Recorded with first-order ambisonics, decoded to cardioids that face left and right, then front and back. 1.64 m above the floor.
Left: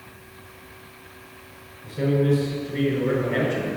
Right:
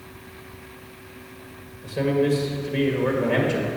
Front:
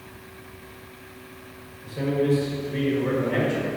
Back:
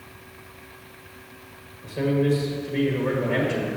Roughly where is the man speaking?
Right.